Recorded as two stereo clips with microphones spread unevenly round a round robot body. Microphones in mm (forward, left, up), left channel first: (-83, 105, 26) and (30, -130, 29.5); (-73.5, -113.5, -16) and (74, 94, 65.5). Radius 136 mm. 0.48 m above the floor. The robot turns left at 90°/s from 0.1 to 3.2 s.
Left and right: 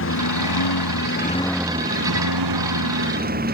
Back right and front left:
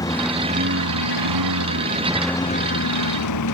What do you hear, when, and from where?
0.0 s a lawn mower: 155° left; by 3.6 s 120° right